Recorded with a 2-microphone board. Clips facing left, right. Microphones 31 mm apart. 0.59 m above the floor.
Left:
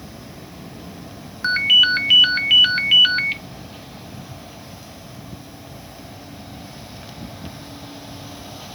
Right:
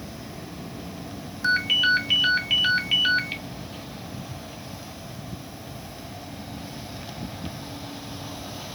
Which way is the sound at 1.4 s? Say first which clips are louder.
Left 6 dB; 35° left (ahead or behind).